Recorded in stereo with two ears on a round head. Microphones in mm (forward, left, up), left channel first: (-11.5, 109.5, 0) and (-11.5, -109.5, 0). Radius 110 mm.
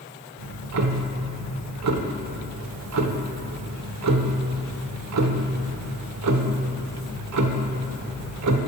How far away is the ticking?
About 0.7 m.